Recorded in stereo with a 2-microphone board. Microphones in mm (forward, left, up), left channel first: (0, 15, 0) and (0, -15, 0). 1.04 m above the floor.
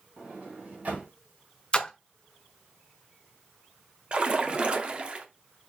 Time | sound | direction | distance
0.2 | a sliding door | 55° right (ahead or behind) | 2.5 m
1.7 | a splash | 30° left (ahead or behind) | 0.5 m
4.1 | a splash | 35° right (ahead or behind) | 0.6 m